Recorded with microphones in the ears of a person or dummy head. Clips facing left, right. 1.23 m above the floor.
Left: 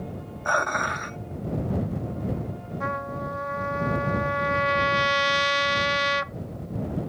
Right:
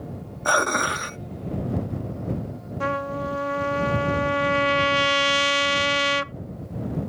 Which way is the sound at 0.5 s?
45° right (ahead or behind).